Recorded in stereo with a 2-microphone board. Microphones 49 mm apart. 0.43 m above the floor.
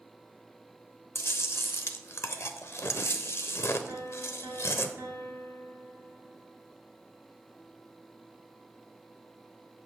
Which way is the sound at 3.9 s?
65° right (ahead or behind).